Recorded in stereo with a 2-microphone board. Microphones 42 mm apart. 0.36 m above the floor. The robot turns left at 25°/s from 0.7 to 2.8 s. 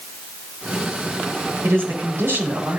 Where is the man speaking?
75° right (ahead or behind), 5.5 m; by 2.8 s 65° right (ahead or behind), 5.5 m.